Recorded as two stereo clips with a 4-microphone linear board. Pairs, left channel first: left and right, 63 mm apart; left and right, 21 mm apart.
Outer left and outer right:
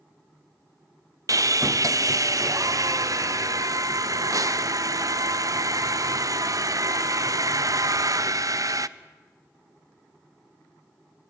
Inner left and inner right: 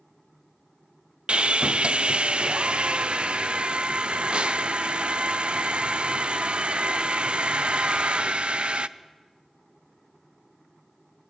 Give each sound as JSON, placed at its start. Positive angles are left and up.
{"t": 1.3, "sound": "sawing", "side_deg": -60, "distance_m": 0.6}